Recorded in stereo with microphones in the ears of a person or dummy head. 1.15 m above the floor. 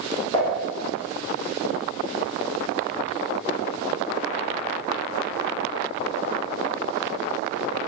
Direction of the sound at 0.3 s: 45° left (ahead or behind).